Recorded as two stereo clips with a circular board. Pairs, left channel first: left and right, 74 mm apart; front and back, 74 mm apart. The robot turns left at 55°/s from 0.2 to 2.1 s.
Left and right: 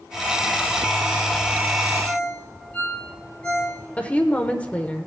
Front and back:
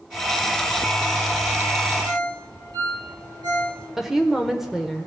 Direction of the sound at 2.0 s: 160° left.